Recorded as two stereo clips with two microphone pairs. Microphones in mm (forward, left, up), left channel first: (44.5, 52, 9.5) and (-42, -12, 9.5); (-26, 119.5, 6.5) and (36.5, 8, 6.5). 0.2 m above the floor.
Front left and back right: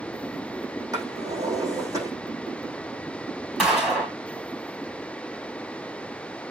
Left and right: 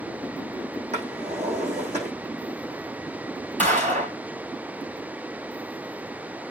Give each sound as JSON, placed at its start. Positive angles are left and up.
{"t": 0.9, "sound": "a drawer", "azimuth_deg": -85, "distance_m": 7.0}
{"t": 3.6, "sound": "a gunshot", "azimuth_deg": -60, "distance_m": 4.0}